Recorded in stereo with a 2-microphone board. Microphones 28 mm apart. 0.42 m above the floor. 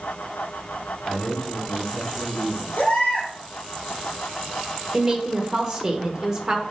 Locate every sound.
1.1 s a man speaking: 15° left (ahead or behind), 2.5 m; by 2.7 s 30° left (ahead or behind), 4 m
2.8 s a baby crying: 70° left (ahead or behind), 3.5 m
4.9 s a woman speaking: 20° right (ahead or behind), 1.0 m